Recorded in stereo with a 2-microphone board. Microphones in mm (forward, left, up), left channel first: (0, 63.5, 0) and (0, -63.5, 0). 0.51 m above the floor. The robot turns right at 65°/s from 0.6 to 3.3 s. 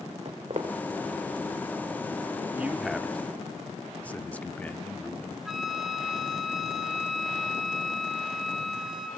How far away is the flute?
About 2.5 m.